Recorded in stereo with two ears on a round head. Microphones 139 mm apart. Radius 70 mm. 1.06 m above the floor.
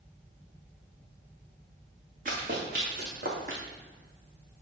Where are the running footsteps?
55° right (ahead or behind), 4.5 m; by 3.6 s 60° right (ahead or behind), 3.5 m.